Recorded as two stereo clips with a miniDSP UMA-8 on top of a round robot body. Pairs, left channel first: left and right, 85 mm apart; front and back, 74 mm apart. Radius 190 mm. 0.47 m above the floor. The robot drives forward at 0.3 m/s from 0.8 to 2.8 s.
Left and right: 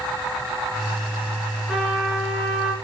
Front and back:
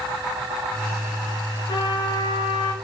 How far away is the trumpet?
About 3.5 m.